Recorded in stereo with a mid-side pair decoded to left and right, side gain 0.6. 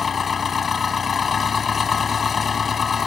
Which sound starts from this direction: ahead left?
An engine running, at 0.0 s.